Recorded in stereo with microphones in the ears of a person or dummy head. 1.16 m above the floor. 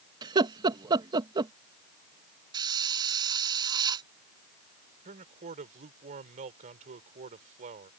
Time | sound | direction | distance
0.2 | laughter | 30° right (ahead or behind) | ?
2.5 | a hiss | 30° right (ahead or behind) | ?
5.0 | a man speaking | 50° right (ahead or behind) | ?